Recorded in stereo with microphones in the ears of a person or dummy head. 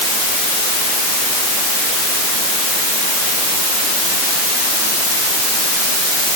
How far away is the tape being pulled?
I don't hear tape being pulled.